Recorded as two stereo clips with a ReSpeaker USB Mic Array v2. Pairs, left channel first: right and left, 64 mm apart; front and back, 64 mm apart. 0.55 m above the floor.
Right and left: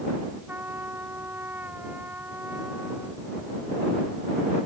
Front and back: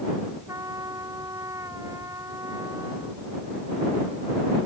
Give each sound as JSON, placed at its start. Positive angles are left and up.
{"t": 0.5, "sound": "a trumpet", "azimuth_deg": 150}